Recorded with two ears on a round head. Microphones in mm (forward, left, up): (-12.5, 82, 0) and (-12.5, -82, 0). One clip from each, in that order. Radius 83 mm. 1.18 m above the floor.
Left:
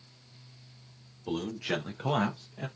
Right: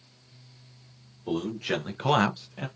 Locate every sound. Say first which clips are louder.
1.3 s a man speaking: right 3 dB; 10° left (ahead or behind), 1.2 m; by 2.7 s 70° right (ahead or behind), 0.7 m